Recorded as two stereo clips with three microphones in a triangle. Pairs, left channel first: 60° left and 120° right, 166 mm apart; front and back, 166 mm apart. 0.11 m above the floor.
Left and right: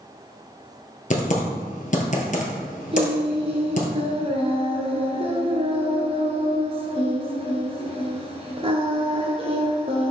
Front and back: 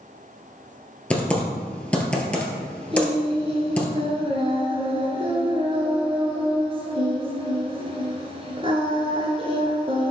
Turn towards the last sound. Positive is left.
turn(degrees=-145)